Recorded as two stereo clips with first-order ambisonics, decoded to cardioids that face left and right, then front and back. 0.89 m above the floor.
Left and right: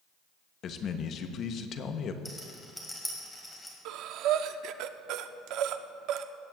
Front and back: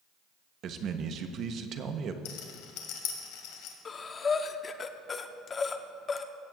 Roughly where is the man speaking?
Behind left.